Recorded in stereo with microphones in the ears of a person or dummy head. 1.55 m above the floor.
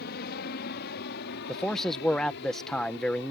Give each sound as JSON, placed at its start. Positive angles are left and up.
{"t": 0.0, "sound": "an aircraft", "side_deg": 55}
{"t": 1.5, "sound": "a man speaking", "side_deg": 5}